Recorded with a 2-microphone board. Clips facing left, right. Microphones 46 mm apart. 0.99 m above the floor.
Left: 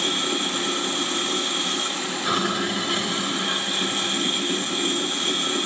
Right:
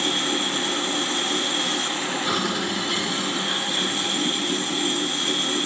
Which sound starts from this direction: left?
Running water, at 0.0 s.